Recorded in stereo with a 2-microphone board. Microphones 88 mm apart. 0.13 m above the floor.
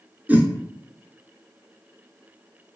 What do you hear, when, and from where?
0.3 s a whoosh: 20° right (ahead or behind), 0.7 m